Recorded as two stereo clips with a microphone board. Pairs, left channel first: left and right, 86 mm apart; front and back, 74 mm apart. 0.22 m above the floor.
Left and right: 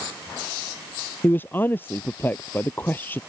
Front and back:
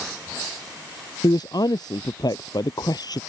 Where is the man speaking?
25° left.